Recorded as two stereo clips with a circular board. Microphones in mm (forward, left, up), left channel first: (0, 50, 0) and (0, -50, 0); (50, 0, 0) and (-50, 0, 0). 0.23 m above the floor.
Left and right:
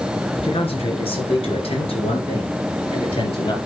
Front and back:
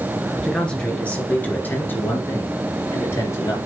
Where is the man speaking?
85° left, 3 m; by 3.6 s 60° left, 4.5 m.